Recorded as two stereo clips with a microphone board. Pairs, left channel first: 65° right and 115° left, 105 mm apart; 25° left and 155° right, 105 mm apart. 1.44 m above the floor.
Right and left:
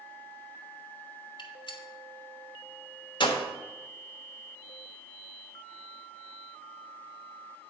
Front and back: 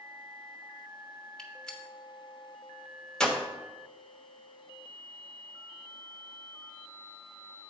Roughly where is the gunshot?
Ahead right.